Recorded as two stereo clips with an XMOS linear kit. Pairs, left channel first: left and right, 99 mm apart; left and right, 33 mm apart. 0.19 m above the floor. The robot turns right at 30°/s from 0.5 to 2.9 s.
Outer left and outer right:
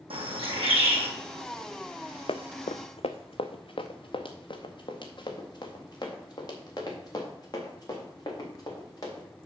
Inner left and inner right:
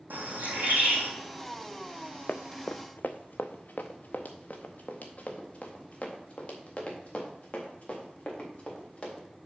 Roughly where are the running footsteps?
Left.